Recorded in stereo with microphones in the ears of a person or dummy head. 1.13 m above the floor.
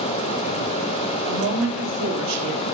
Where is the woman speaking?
60° right (ahead or behind), 1.6 m; by 2.6 s 90° right, 2 m.